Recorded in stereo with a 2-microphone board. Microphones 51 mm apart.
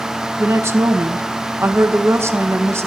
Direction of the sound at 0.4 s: 60° right (ahead or behind).